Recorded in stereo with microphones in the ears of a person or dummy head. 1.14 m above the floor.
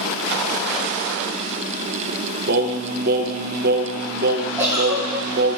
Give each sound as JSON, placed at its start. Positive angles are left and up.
{"t": 2.5, "sound": "singing", "side_deg": -45, "distance_m": 0.6}
{"t": 4.6, "sound": "a giggle", "side_deg": -10, "distance_m": 3.0}